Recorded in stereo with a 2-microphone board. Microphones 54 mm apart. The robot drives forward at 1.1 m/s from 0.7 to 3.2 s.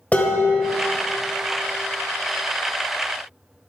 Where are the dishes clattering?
30° left (ahead or behind), 1.4 m; by 1.0 s 25° left (ahead or behind), 1.7 m.